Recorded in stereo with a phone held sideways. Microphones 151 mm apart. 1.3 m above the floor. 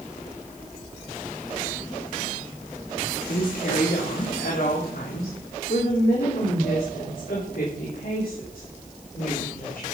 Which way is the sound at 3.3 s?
70° left (ahead or behind).